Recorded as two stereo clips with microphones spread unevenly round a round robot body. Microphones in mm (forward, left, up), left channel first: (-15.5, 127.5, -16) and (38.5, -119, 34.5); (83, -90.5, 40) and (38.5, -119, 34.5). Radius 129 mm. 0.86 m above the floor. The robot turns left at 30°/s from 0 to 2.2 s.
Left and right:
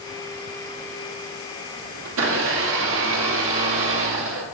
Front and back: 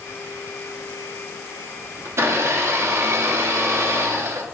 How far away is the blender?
About 1.1 m.